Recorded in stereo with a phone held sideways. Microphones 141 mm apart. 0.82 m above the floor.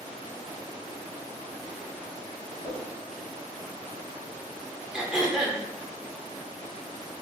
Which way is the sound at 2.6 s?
60° left (ahead or behind).